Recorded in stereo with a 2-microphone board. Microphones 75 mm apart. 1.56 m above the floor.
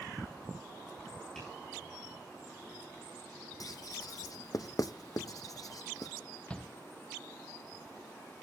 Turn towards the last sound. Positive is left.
turn(degrees=15)  # may be behind; listen again after turning